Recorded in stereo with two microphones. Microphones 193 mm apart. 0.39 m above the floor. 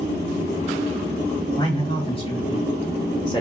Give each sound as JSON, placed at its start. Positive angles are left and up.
{"t": 1.6, "sound": "a man speaking", "side_deg": 25, "distance_m": 2.0}